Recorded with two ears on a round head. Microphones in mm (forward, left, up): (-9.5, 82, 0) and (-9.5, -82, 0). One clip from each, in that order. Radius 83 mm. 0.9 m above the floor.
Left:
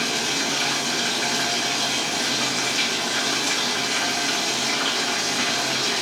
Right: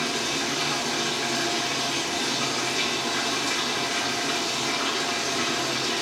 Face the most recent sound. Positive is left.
turn(degrees=65)  # may be behind; listen again after turning